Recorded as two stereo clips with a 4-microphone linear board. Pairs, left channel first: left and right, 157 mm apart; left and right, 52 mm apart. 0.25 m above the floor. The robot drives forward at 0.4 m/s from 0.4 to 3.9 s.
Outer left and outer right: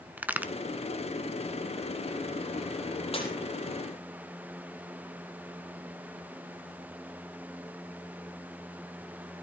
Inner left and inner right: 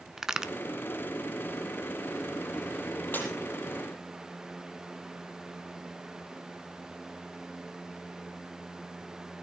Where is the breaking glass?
40° left (ahead or behind), 5.5 m.